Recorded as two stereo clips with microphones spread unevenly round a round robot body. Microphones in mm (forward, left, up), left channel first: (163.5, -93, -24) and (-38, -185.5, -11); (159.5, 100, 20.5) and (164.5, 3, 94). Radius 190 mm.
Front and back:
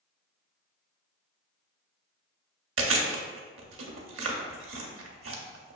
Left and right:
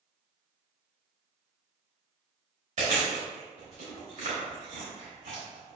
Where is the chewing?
140° right, 0.7 m.